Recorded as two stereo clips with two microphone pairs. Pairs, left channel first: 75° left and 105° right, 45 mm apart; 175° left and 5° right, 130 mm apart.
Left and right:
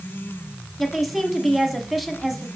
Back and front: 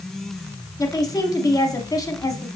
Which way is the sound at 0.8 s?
170° left.